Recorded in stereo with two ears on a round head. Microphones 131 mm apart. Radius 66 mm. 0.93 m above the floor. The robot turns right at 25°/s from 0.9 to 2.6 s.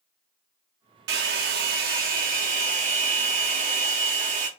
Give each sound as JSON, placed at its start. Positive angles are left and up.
{"t": 1.1, "sound": "a hair dryer", "azimuth_deg": -90, "distance_m": 1.0}